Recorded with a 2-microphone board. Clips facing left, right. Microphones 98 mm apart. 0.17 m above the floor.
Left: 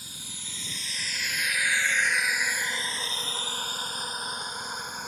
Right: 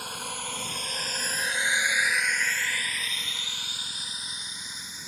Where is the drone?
70° right (ahead or behind); by 5.1 s 55° left (ahead or behind).